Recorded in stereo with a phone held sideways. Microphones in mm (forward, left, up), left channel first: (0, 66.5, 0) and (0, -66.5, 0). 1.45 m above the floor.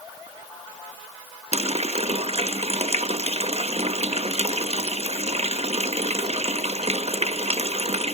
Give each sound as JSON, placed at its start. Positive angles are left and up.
{"t": 1.5, "sound": "a running tap", "side_deg": -50, "distance_m": 1.0}